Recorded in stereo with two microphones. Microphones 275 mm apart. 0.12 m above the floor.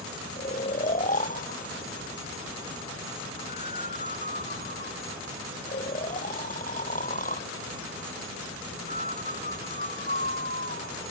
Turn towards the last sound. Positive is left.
turn(degrees=30)  # may be behind; listen again after turning